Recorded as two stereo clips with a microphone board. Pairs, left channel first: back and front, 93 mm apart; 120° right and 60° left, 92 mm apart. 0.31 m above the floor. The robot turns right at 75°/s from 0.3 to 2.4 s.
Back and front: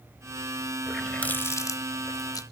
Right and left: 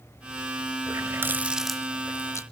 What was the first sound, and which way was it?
A running tap, 85° left.